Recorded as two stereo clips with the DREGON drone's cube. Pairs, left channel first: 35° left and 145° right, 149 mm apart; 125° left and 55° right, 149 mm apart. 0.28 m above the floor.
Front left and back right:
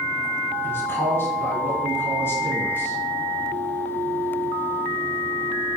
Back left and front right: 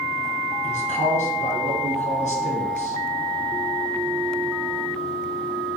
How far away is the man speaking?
About 3 m.